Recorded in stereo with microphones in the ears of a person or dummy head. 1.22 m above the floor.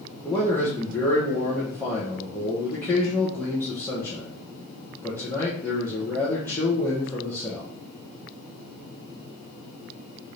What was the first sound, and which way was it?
A man speaking, 10° left (ahead or behind).